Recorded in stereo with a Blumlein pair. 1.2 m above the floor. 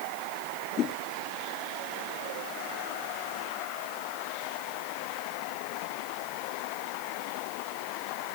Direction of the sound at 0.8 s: 30° left.